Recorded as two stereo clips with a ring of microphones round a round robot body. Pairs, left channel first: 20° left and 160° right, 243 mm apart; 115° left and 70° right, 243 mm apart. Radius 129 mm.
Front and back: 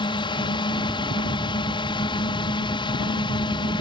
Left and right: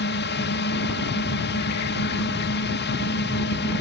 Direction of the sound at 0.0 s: 90° left.